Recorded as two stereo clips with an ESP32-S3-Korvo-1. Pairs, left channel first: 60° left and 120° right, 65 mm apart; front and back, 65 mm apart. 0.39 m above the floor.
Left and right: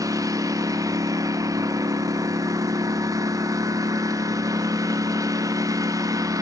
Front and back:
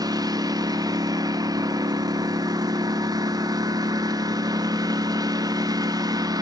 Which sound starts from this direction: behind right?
A lawn mower, at 0.0 s.